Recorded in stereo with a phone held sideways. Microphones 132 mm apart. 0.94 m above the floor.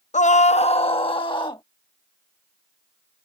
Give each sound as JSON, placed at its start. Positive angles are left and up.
{"t": 0.1, "sound": "a scream", "side_deg": 65}